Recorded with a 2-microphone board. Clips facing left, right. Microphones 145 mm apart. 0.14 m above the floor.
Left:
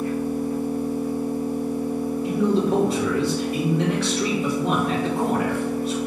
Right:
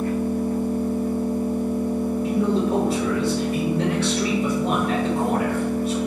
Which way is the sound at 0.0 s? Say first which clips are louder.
Right 1 dB; 50° right (ahead or behind).